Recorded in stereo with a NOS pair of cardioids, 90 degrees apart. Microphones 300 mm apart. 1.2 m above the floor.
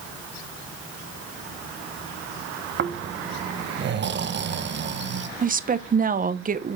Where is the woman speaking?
30° right, 0.7 m.